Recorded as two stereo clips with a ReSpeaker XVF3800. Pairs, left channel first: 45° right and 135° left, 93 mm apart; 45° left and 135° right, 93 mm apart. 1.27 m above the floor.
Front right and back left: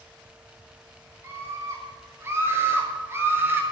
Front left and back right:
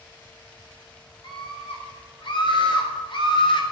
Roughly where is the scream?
Left.